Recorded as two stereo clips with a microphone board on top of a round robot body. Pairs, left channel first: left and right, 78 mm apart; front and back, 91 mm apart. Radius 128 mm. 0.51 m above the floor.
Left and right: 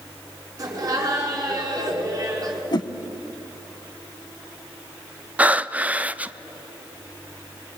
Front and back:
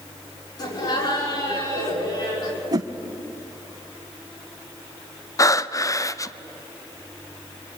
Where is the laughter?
40° right, 6.5 m.